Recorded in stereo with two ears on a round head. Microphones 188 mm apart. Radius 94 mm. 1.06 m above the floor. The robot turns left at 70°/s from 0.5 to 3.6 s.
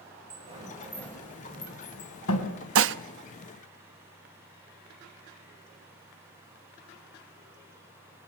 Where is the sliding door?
30° right (ahead or behind), 4 m; by 2.6 s 65° left (ahead or behind), 4 m.